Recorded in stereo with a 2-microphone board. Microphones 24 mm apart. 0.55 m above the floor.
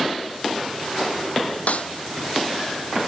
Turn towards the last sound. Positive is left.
turn(degrees=75)  # may be behind; listen again after turning